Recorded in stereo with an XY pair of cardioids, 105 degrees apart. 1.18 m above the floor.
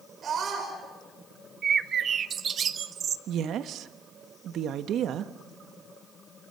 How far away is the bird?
About 0.9 m.